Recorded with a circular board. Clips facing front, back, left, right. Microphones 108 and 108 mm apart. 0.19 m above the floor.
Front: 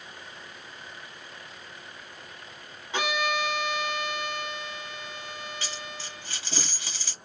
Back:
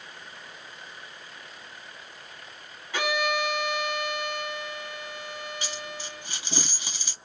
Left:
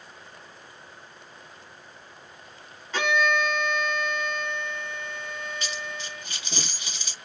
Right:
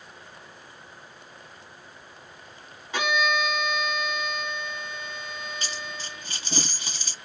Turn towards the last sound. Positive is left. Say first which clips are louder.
# back 2 dB, left 1 dB
turn(degrees=-115)